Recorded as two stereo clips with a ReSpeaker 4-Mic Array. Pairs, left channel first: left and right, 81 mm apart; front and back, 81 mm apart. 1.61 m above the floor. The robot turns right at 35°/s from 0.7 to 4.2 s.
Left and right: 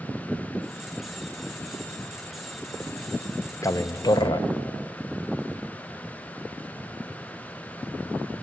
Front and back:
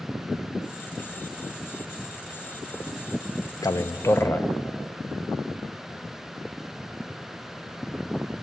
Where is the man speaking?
40° left, 0.5 m; by 4.5 s 60° left, 0.5 m.